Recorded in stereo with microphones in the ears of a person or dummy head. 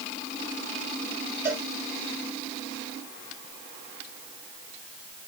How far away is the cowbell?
About 5.5 m.